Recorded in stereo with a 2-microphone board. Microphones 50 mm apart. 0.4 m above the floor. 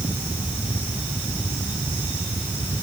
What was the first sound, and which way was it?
Only background noise.